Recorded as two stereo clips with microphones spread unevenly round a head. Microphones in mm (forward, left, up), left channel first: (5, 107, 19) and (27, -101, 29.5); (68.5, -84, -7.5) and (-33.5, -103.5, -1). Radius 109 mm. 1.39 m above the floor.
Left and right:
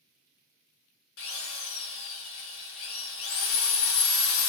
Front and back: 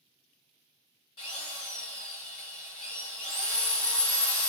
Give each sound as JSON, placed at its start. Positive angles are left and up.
{"t": 1.2, "sound": "a drill", "azimuth_deg": 70, "distance_m": 1.0}